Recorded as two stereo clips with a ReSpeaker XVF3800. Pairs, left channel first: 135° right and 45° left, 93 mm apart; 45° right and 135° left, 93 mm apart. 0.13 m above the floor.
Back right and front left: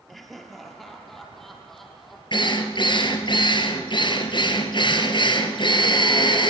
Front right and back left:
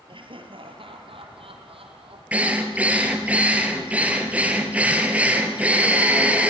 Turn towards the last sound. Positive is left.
turn(degrees=-150)